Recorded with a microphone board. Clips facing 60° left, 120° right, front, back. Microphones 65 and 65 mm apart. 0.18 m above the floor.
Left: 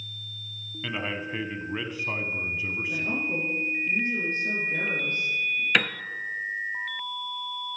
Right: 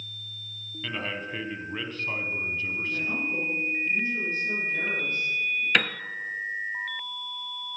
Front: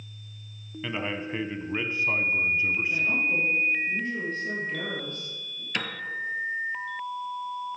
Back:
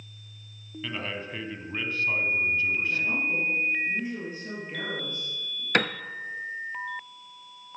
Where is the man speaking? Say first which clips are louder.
Left 1 dB, front 3 dB; 10° left, 1.0 m.